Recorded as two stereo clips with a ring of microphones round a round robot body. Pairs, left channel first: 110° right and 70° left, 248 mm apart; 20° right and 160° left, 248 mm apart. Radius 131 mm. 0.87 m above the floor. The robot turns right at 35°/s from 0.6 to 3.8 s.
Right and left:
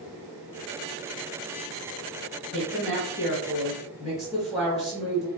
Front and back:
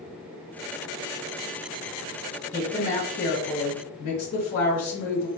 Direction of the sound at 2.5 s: 95° right.